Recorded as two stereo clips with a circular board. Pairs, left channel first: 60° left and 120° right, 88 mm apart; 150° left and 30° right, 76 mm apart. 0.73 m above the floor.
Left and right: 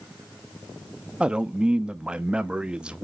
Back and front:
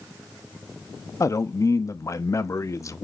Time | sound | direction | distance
1.2 | a man speaking | 165° left | 0.6 m